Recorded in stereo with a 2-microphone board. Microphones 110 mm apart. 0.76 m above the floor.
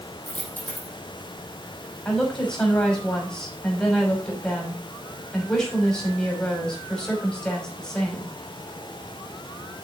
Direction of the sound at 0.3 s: 15° left (ahead or behind).